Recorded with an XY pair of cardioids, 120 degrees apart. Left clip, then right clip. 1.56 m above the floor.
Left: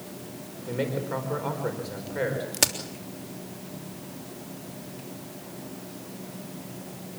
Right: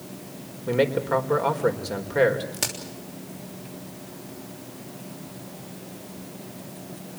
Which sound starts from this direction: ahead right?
A man speaking, at 0.7 s.